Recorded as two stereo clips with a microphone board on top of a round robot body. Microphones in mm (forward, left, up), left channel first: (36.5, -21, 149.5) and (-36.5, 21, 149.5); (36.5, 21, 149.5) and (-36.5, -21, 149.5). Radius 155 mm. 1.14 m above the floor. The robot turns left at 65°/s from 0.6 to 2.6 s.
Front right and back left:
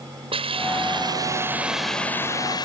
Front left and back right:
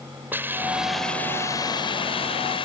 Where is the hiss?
140° left; by 2.6 s 10° left.